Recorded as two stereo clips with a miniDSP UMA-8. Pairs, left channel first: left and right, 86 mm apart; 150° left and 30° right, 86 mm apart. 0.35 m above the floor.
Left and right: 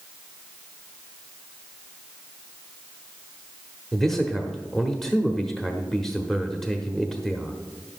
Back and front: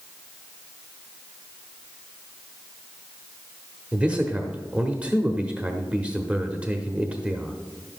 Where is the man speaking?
10° left, 0.8 m.